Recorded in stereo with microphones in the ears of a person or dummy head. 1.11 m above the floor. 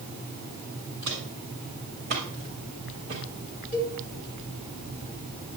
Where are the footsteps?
60° right (ahead or behind), 6 m; by 3.2 s 30° right (ahead or behind), 4.5 m.